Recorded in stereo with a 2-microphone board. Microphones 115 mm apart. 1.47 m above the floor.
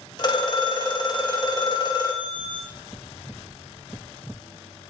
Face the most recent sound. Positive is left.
turn(degrees=35)  # may be behind; listen again after turning